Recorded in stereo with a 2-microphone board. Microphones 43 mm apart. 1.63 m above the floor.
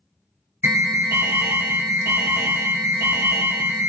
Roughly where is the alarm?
Right.